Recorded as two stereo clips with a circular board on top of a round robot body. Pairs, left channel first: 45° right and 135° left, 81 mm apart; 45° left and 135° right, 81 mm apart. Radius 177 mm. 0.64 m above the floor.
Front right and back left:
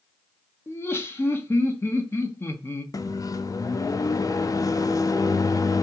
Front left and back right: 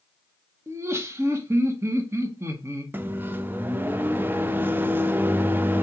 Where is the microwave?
75° right, 0.5 m.